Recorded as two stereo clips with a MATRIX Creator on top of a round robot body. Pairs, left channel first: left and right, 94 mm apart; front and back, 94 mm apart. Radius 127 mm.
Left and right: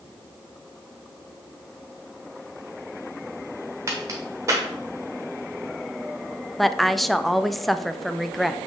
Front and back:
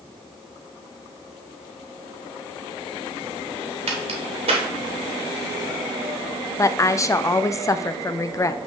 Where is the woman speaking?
Straight ahead, 0.6 m.